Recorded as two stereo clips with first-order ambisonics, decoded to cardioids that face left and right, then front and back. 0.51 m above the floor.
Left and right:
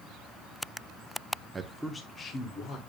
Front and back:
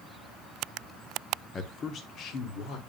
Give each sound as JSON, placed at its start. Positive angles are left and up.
{"t": 1.5, "sound": "a man speaking", "azimuth_deg": -35, "distance_m": 0.9}